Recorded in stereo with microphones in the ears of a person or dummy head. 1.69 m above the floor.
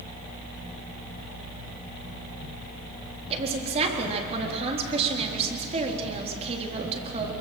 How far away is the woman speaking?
About 3.5 m.